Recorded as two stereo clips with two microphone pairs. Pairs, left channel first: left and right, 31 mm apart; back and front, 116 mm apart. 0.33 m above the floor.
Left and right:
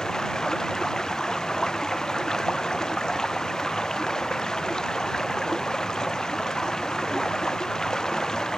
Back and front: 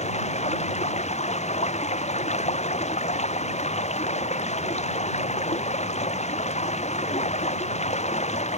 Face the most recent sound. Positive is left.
turn(degrees=160)